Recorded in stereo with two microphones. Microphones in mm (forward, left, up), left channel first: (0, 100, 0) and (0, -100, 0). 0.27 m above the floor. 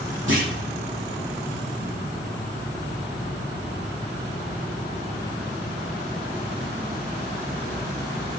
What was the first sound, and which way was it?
A clunk, 75° right (ahead or behind).